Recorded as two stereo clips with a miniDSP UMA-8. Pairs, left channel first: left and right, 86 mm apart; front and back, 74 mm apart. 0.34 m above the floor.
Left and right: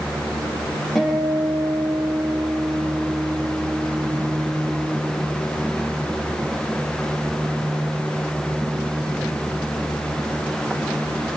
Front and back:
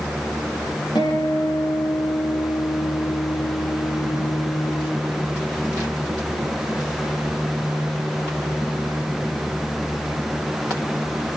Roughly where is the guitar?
Ahead.